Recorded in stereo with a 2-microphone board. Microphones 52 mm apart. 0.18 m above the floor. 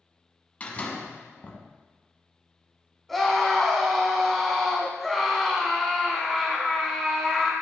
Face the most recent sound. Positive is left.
turn(degrees=5)  # may be behind; listen again after turning